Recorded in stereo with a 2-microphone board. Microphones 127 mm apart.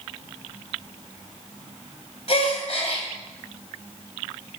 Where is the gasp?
55° left (ahead or behind), 1.9 m.